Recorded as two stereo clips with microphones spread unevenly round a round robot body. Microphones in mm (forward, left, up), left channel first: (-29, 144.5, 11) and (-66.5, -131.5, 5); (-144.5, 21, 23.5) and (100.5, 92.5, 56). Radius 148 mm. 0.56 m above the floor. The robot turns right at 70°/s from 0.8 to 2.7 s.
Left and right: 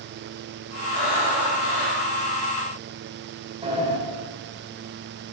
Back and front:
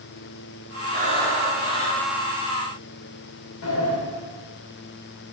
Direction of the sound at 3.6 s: 165° right.